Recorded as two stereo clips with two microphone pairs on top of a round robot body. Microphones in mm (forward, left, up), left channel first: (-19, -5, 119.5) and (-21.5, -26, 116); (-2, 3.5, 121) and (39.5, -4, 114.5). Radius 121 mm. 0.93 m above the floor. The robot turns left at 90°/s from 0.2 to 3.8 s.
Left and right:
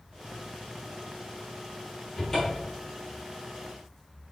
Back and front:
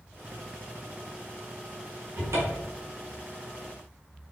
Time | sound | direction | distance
2.2 | a cupboard door | 35° left | 1.0 m